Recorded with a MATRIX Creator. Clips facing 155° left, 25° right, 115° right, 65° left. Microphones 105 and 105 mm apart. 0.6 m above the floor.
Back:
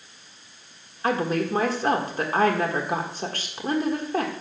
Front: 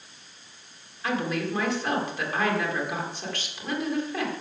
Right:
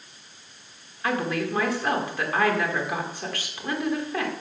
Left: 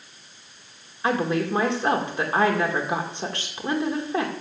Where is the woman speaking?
125° left, 1.7 m.